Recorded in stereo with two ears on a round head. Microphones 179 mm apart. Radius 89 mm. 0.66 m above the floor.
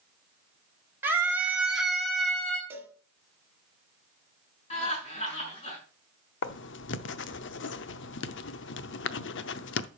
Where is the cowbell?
10° right (ahead or behind), 1.6 m.